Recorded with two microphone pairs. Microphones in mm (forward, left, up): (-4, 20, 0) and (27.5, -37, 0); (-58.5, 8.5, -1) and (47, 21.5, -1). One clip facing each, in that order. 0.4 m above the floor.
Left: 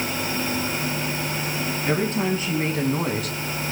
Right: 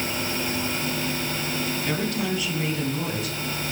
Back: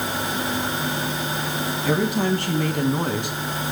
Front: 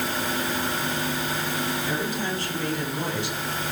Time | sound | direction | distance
1.9 | a woman speaking | 175° right | 3 m